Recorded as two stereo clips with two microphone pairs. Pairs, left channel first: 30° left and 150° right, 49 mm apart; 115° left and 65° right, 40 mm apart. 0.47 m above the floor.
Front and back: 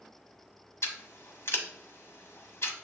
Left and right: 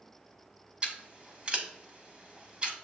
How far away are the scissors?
About 0.7 m.